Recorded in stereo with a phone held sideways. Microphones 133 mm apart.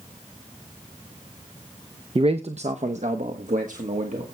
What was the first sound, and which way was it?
A man speaking, 40° right (ahead or behind).